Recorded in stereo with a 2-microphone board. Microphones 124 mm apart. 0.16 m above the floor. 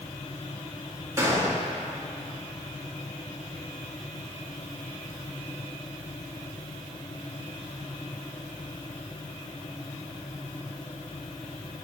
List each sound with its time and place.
1.2 s a gunshot: 20° right (ahead or behind), 2 m